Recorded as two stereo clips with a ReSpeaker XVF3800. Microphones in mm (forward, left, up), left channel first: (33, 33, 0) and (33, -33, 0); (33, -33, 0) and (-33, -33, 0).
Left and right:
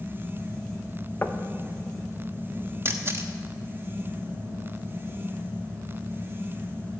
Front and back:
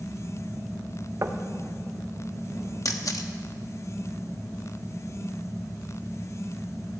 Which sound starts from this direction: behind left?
Knocking, at 1.2 s.